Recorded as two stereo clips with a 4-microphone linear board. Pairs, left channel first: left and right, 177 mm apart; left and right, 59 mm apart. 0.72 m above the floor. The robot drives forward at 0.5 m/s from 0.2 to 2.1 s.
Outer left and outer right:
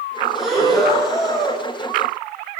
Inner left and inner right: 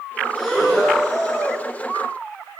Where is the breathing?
Centre (ahead or behind), 9.5 m.